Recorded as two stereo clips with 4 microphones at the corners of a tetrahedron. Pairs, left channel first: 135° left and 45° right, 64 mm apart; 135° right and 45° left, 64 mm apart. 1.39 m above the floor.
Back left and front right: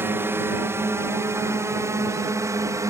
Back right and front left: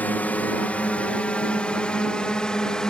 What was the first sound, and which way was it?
A drone, 80° right.